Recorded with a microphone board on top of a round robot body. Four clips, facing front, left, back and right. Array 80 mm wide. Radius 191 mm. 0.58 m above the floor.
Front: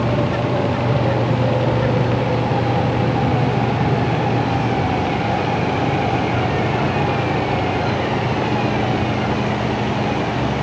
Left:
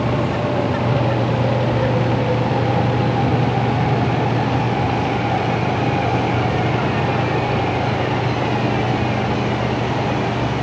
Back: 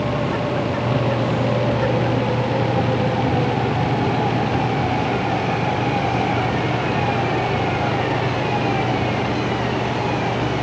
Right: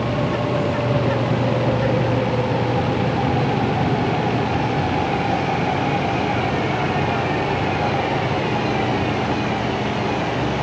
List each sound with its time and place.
Only background noise.